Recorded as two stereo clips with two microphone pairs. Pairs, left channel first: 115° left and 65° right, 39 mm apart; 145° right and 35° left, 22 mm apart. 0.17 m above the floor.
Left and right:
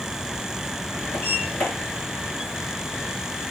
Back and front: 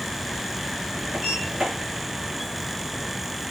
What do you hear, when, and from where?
1.1 s a sliding door: 80° left, 5 m